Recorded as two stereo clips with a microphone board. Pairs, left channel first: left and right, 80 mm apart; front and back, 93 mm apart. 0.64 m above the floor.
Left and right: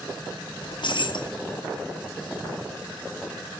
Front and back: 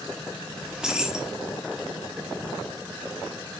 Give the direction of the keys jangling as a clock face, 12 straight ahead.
9 o'clock.